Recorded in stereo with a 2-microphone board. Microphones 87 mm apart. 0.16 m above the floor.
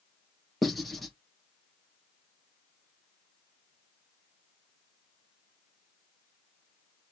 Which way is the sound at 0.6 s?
Centre (ahead or behind).